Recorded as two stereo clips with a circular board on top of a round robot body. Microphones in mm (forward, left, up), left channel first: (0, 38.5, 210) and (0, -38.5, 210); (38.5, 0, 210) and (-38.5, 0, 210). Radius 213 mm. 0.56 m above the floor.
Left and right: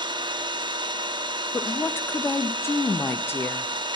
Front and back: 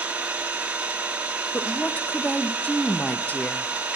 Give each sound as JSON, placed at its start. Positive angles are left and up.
{"t": 0.0, "sound": "an engine running", "azimuth_deg": -105, "distance_m": 1.0}
{"t": 1.5, "sound": "a woman speaking", "azimuth_deg": 55, "distance_m": 0.7}